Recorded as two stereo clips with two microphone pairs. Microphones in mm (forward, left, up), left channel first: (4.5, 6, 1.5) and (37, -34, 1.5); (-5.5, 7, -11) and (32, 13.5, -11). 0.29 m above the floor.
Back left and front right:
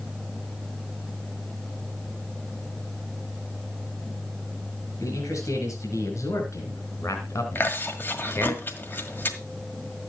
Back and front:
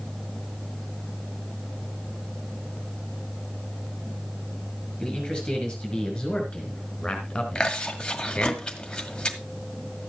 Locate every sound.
5.0 s a man speaking: 120° left, 5 m; by 8.6 s 140° left, 2 m
7.5 s chewing: 135° left, 1.8 m